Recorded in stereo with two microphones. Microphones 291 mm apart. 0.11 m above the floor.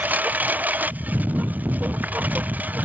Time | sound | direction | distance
0.0 | a lawn mower | 5° right (ahead or behind) | ?